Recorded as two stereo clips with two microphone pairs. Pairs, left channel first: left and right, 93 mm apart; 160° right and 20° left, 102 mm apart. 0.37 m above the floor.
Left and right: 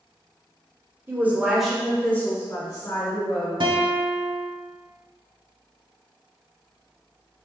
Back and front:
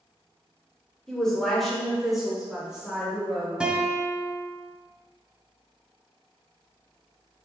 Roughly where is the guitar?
Ahead right.